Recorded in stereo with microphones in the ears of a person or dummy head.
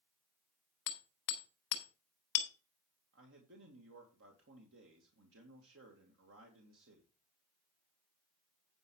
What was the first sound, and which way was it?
Hammering, 70° left (ahead or behind).